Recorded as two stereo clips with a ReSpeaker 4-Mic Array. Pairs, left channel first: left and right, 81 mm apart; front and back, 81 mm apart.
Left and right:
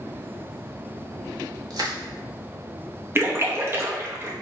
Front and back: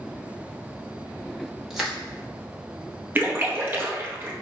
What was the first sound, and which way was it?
Crushing, 95° right.